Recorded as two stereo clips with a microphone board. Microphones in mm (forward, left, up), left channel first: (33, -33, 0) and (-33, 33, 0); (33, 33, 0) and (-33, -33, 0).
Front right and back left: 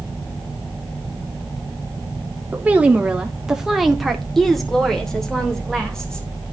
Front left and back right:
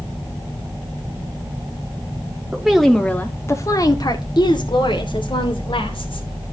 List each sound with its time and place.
2.5 s a woman speaking: 170° left, 0.8 m; by 6.3 s 35° left, 2 m